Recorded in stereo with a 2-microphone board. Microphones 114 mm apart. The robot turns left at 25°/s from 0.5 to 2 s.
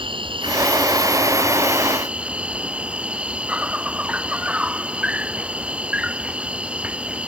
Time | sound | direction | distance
0.0 | an insect | 130° right | ?